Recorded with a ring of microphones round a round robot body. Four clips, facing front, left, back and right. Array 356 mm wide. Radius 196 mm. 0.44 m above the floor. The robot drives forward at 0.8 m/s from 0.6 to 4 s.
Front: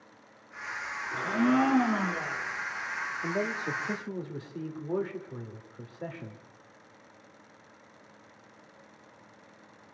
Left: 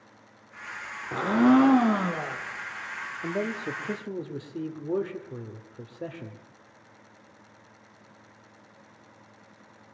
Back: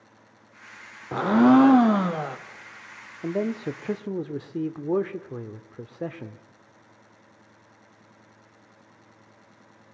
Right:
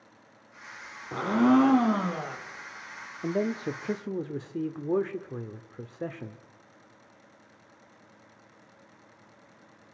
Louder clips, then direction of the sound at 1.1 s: Left 2 dB, back 9 dB; 175° left.